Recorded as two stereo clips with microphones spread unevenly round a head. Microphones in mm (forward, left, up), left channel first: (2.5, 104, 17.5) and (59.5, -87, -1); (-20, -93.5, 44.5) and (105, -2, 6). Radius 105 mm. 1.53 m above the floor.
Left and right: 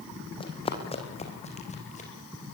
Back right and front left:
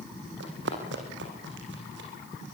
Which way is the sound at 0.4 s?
45° left.